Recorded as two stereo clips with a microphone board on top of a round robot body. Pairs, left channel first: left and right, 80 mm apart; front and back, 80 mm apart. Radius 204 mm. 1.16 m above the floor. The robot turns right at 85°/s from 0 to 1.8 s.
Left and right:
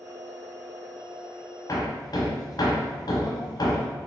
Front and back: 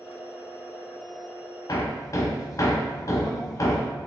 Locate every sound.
1.7 s hammering: 40° left, 1.0 m; by 3.9 s 50° left, 1.0 m